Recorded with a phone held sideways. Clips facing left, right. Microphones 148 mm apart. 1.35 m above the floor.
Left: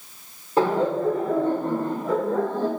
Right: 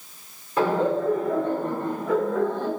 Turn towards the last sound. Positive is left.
turn(degrees=35)  # may be behind; listen again after turning